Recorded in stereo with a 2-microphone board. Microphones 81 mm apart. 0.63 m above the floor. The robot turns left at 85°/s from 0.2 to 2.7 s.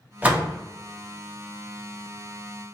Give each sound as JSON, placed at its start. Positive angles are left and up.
{"t": 0.2, "sound": "a door slam", "side_deg": -20, "distance_m": 0.7}